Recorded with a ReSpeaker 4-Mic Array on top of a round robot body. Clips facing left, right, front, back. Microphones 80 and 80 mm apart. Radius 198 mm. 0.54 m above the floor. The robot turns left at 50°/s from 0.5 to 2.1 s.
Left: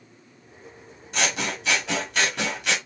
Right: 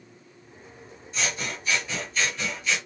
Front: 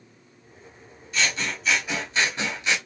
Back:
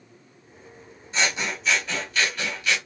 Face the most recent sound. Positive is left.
turn(degrees=65)